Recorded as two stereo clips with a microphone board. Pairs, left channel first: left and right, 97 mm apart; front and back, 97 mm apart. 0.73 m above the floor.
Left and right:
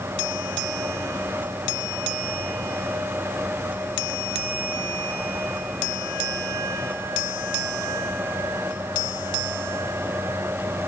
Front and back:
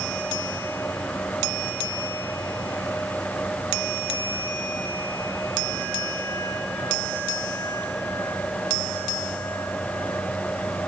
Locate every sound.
Only background noise.